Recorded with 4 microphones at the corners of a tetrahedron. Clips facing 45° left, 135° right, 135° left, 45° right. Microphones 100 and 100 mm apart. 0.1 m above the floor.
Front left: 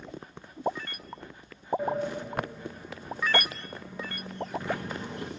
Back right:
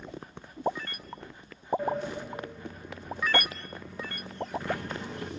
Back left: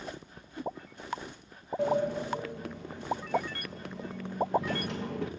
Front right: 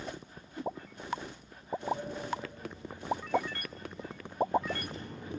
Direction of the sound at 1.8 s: 125° left.